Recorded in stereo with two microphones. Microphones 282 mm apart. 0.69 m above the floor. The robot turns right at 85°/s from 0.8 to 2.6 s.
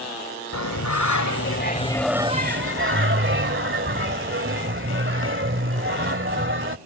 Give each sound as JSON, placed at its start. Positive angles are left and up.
{"t": 0.5, "sound": "singing", "azimuth_deg": 70}